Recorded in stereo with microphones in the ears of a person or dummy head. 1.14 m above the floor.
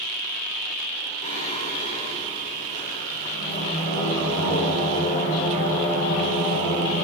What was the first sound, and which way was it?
Singing, 35° left (ahead or behind).